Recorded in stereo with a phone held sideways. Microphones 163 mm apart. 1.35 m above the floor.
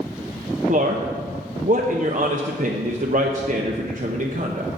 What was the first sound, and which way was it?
A man speaking, 50° right (ahead or behind).